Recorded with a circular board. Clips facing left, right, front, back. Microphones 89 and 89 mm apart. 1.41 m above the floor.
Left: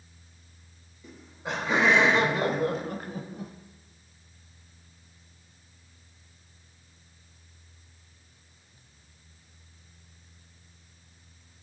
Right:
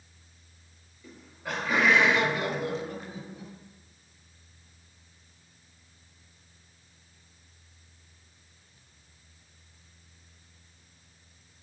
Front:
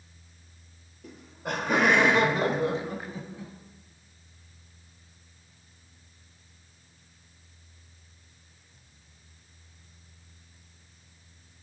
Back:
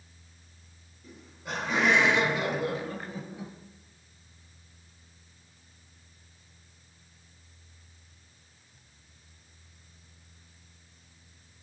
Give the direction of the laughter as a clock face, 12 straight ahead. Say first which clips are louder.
Left 2 dB, front 5 dB; 11 o'clock.